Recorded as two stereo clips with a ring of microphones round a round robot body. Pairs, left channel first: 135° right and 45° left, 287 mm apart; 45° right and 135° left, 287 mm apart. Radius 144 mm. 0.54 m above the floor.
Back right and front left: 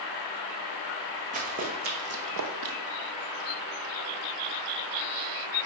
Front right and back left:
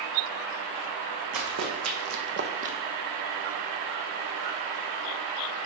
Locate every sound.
1.3 s running footsteps: 110° left, 2.0 m; by 2.8 s 65° left, 0.9 m